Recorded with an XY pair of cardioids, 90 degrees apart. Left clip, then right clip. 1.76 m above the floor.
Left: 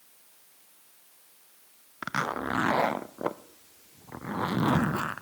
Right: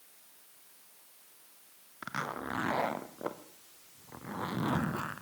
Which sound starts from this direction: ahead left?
A zipper, at 2.0 s.